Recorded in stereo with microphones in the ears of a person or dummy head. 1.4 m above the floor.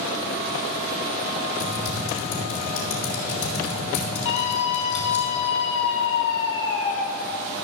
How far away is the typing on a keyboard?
About 4.5 m.